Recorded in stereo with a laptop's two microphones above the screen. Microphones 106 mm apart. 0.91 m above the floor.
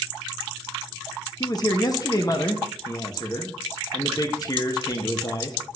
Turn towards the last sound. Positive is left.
turn(degrees=35)  # may be behind; listen again after turning